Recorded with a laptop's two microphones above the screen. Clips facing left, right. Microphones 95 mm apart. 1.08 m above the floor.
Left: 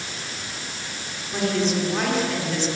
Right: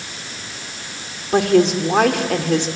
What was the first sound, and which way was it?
A woman speaking, 75° right (ahead or behind).